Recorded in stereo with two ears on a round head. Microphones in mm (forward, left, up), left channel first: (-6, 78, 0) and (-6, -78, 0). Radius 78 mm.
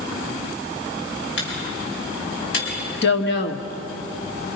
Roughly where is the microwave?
Left.